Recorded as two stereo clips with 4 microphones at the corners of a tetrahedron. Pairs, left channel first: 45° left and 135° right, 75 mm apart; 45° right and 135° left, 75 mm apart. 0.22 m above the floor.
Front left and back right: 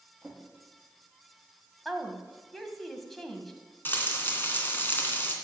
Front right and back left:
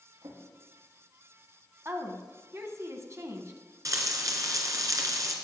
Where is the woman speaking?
130° left, 2.0 m.